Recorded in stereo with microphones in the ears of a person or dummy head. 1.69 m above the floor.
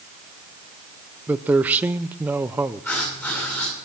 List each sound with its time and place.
1.3 s a man speaking: 10° right (ahead or behind), 0.7 m
2.8 s writing: 10° left (ahead or behind), 9.5 m